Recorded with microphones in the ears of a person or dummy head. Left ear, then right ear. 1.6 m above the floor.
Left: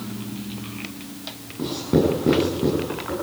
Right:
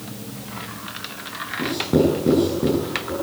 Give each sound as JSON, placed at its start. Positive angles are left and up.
{"t": 1.6, "sound": "writing", "side_deg": 5, "distance_m": 9.0}